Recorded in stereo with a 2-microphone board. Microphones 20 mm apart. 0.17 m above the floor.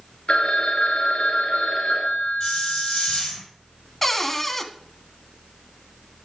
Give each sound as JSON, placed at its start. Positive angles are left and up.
{"t": 0.3, "sound": "a phone ringing", "side_deg": 55, "distance_m": 2.0}
{"t": 2.4, "sound": "a hiss", "side_deg": 40, "distance_m": 6.5}
{"t": 4.0, "sound": "a cupboard door", "side_deg": 15, "distance_m": 0.8}